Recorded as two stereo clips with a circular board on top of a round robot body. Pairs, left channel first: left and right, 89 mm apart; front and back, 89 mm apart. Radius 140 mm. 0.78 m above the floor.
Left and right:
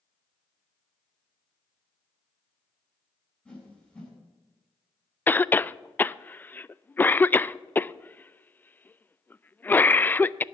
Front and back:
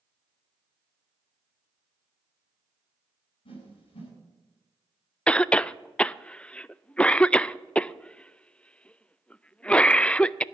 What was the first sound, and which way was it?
A whoosh, 10° left.